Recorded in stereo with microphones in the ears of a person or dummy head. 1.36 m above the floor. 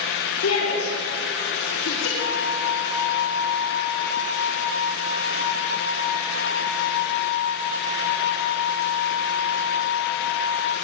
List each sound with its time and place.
0.4 s a shout: 80° left, 5 m; by 2.1 s 75° left (ahead or behind), 3.5 m
2.2 s a flute: 70° left (ahead or behind), 1.9 m